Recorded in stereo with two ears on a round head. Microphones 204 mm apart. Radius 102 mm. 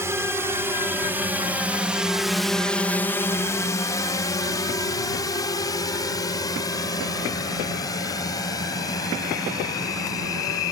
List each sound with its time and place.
0.0 s a drone: 10° right (ahead or behind); by 10.7 s 15° left (ahead or behind)